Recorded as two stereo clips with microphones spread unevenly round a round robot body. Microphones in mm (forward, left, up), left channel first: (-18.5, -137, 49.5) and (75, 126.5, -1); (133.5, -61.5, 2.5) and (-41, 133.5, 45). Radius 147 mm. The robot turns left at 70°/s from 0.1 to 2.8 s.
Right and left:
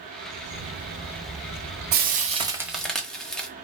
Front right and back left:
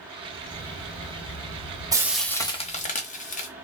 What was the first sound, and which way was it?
A bird, 70° left.